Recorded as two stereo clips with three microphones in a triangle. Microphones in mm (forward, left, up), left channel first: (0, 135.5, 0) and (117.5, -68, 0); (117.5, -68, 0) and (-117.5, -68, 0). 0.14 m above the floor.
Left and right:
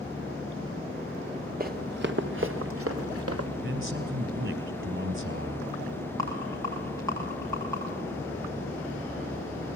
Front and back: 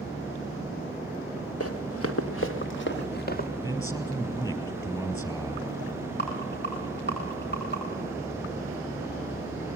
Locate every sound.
1.6 s running footsteps: 10° right, 2 m; by 3.5 s 55° right, 2 m
3.6 s a man speaking: 75° right, 4 m
6.2 s a rattle: 40° left, 7 m